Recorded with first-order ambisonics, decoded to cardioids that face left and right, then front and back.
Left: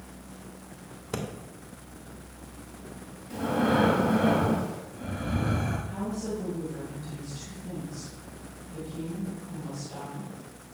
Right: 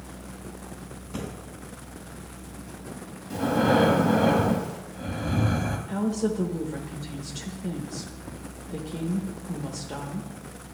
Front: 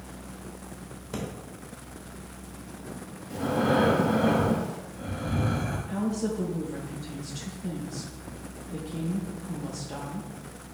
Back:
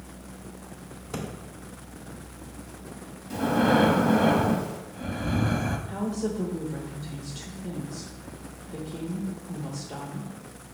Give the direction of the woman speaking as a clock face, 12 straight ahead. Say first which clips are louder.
Right 6 dB, even; 3 o'clock.